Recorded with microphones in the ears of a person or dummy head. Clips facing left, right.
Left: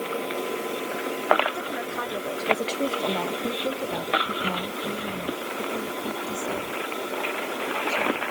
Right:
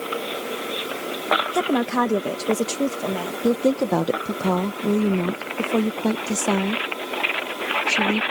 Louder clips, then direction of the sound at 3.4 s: Right 9 dB; 75° right (ahead or behind).